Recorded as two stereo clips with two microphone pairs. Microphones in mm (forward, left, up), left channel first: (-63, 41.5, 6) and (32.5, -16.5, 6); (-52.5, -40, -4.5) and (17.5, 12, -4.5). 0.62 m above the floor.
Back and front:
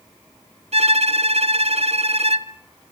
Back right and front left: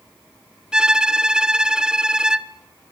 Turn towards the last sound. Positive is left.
turn(degrees=-45)